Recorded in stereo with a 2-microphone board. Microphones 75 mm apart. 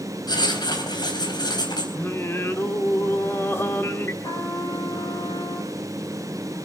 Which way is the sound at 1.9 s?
30° left (ahead or behind).